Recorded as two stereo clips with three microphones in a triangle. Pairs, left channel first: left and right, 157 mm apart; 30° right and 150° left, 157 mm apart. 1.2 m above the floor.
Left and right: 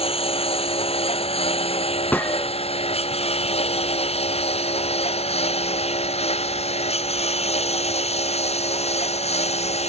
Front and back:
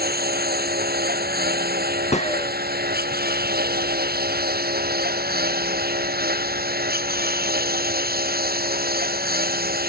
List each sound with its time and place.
0.0 s a lawn mower: 140° left
2.1 s a gunshot: 10° left